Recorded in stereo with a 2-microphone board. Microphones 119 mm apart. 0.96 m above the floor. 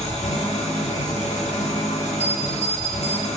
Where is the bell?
60° right (ahead or behind), 1.5 m.